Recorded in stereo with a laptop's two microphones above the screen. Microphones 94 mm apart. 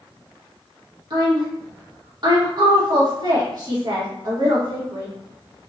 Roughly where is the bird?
No bird in this recording.